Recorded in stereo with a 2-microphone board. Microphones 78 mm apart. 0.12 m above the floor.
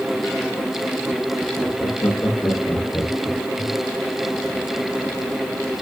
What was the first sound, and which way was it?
Laughter, 50° left (ahead or behind).